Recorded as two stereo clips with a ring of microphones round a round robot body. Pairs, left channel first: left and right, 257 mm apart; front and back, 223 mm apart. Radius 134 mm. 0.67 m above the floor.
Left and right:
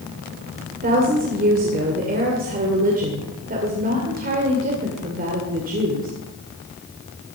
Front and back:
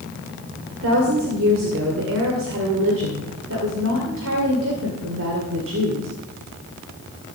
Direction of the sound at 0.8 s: 145° right.